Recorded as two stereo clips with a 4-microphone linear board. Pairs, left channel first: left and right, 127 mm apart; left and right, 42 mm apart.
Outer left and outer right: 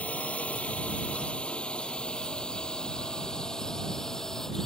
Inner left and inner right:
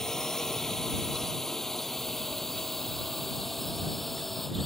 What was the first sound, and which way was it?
A drone, 10° left (ahead or behind).